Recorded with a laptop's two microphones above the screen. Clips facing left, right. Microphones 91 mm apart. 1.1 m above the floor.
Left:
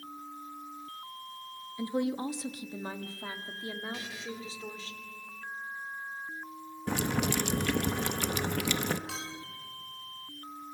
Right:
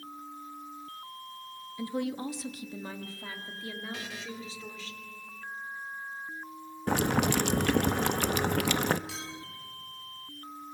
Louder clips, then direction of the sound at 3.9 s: Right 1 dB; 75° right (ahead or behind).